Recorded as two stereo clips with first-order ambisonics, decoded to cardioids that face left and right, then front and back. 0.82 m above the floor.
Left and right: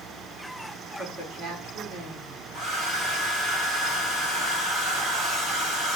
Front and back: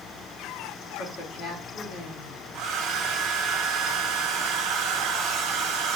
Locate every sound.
1.0 s a woman speaking: 50° right, 1.7 m
2.5 s a hair dryer: 150° right, 1.0 m